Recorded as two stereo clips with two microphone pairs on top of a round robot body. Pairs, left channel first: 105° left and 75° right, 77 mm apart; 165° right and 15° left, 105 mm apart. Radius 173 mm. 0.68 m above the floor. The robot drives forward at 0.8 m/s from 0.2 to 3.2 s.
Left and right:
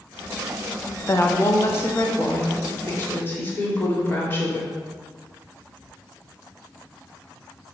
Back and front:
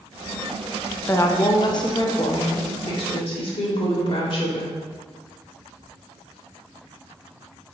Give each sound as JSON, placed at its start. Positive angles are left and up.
{"t": 1.1, "sound": "a woman speaking", "azimuth_deg": 140, "distance_m": 1.1}